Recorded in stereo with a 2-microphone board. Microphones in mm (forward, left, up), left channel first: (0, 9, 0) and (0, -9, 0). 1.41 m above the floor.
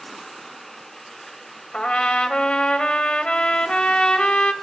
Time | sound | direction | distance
1.7 | a trumpet | 70° left (ahead or behind) | 2.5 m